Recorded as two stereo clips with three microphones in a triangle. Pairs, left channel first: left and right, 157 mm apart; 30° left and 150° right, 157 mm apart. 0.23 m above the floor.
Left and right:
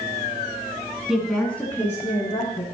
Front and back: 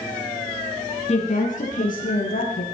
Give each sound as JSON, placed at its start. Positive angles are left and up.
{"t": 1.1, "sound": "a woman speaking", "azimuth_deg": -5, "distance_m": 2.0}